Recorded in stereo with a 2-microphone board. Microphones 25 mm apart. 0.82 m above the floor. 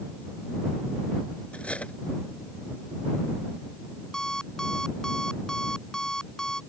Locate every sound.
1.5 s cutlery clinking: 60° left (ahead or behind)
4.1 s an alarm clock: 25° left (ahead or behind)